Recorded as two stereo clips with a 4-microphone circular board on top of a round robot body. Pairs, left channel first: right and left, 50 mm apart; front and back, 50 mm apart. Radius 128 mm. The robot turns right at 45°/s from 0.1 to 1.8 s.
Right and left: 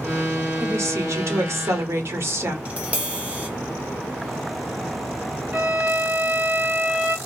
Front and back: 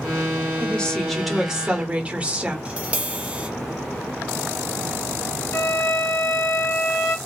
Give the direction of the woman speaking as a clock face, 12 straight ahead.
10 o'clock.